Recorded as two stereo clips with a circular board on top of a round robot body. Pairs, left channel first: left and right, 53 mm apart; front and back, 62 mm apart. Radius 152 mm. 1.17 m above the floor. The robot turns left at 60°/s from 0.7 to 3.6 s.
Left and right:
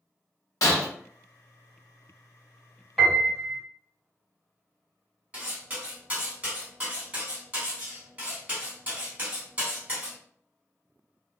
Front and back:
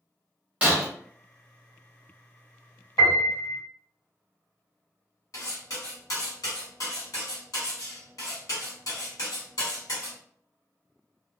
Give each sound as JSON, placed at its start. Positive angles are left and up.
{"t": 0.6, "sound": "breaking glass", "azimuth_deg": 110, "distance_m": 0.6}
{"t": 3.0, "sound": "a piano", "azimuth_deg": 5, "distance_m": 1.6}
{"t": 5.3, "sound": "cutlery clinking", "azimuth_deg": -30, "distance_m": 1.5}